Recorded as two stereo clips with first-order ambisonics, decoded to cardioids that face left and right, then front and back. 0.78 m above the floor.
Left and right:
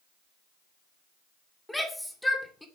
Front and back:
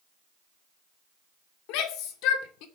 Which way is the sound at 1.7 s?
5° left.